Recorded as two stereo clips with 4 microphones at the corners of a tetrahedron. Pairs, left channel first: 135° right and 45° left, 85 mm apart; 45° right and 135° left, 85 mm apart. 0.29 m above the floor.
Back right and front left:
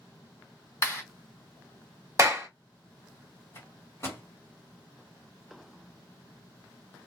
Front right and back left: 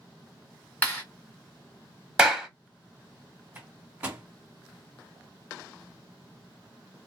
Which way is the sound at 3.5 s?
165° right.